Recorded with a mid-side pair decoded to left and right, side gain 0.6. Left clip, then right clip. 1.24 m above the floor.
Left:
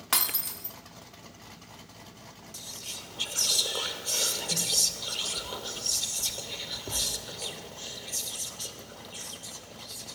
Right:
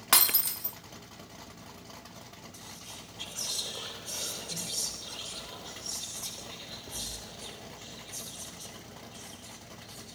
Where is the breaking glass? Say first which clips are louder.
Right 3 dB; 20° right, 1.6 m.